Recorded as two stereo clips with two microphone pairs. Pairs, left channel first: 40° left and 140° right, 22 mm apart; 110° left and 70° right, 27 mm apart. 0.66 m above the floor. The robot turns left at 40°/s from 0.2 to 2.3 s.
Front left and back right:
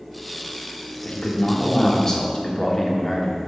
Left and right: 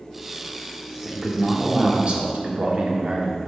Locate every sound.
1.1 s a man speaking: 20° left, 1.4 m; by 3.5 s 30° right, 1.4 m